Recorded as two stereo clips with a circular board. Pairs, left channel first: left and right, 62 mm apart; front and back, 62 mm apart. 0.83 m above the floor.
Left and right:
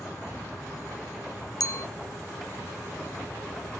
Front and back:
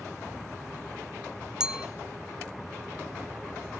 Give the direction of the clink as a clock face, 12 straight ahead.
9 o'clock.